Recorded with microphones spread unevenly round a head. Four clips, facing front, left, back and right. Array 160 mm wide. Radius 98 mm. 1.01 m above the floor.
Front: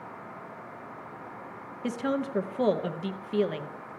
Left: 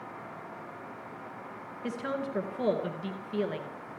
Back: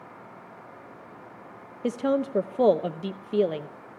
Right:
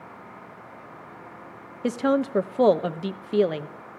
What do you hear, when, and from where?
1.8 s a woman speaking: 145° right, 0.9 m